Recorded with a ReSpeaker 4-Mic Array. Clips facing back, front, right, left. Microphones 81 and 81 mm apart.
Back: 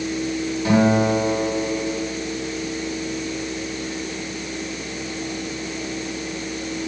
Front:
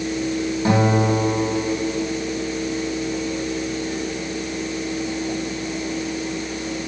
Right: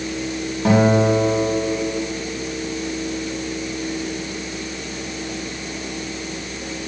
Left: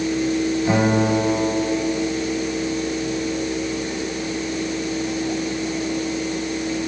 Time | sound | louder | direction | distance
0.7 | a guitar | back 2 dB, right 6 dB | 65° right | 10 m